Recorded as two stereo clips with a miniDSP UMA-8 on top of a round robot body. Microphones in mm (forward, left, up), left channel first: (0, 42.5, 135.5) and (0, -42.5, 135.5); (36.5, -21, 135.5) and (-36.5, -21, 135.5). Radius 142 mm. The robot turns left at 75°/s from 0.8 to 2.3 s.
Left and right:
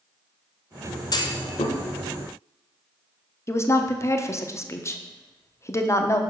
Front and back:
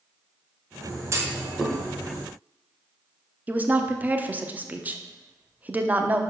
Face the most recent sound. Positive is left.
turn(degrees=125)